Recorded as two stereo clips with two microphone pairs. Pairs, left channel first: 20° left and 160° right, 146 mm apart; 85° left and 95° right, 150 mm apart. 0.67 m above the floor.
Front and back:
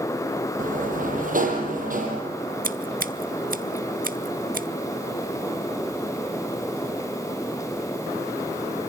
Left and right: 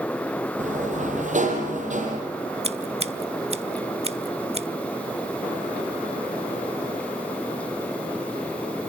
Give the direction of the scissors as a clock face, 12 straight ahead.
5 o'clock.